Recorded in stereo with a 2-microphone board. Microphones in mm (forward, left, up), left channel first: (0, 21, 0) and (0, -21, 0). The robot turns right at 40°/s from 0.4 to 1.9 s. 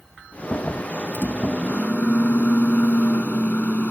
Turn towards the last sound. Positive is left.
turn(degrees=125)